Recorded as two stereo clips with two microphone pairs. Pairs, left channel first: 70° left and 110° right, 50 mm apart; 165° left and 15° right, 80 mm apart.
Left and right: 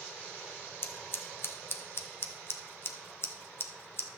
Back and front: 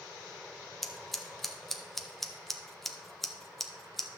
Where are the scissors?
80° left, 0.8 m.